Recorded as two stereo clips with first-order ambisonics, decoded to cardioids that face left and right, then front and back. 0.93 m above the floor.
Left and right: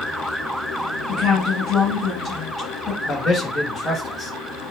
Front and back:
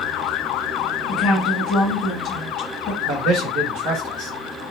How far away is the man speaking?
About 0.8 m.